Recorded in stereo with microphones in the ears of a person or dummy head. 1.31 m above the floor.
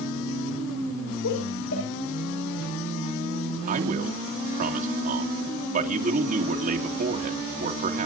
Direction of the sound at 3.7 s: 45° right (ahead or behind).